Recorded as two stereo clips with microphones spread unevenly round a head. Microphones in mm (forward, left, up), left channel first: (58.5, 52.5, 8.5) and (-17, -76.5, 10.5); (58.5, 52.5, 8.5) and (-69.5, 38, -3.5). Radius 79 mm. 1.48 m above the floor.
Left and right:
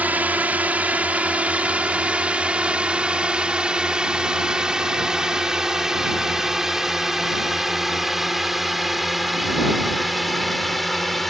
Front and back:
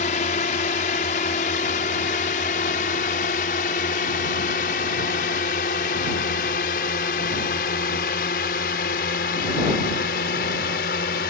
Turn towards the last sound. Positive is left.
turn(degrees=-30)